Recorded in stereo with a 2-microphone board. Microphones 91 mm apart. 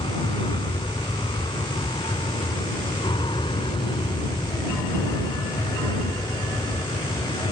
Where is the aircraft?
70° left (ahead or behind); by 7.5 s 60° left (ahead or behind).